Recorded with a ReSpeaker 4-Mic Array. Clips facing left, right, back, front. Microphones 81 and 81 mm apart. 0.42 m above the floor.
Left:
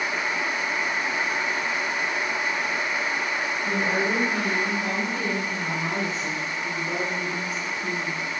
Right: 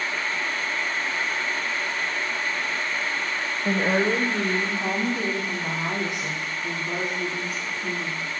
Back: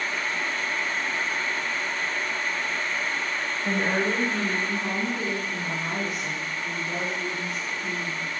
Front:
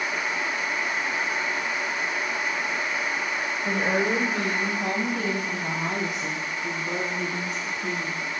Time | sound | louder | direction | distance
3.6 | a woman speaking | right 4 dB, front 1 dB | 85° right | 1.8 m